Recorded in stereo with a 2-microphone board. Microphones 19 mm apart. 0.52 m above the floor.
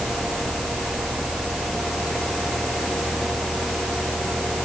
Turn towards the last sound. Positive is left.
No sound to turn to.